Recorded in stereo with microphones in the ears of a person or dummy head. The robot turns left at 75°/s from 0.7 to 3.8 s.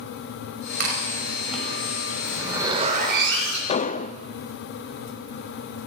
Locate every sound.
0.8 s chewing: 60° right (ahead or behind), 7 m; by 2.1 s 40° left (ahead or behind), 7 m
2.2 s a zipper: 15° left, 6.5 m; by 3.6 s 90° right, 6.5 m
3.7 s an explosion: 30° left (ahead or behind), 0.7 m; by 4.1 s 40° left (ahead or behind), 0.7 m